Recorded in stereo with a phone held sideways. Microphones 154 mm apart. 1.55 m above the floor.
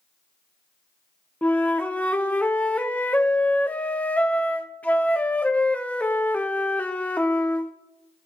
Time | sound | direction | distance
1.4 | a flute | 10° left (ahead or behind) | 0.8 m